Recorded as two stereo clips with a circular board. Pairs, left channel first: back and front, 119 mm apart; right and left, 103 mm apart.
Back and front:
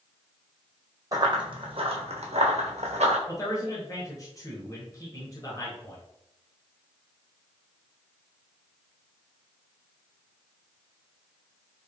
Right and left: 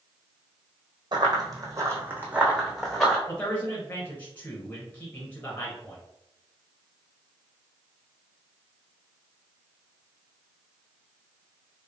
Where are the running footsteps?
55° left, 1.0 m; by 3.2 s 5° right, 1.3 m.